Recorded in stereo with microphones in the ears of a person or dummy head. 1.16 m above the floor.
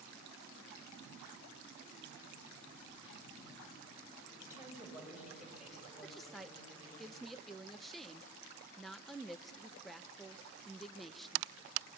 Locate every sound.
4.4 s a woman speaking: 10° right (ahead or behind), 6.5 m; by 7.0 s 10° left (ahead or behind), 8 m
6.0 s a woman speaking: 10° left (ahead or behind), 0.6 m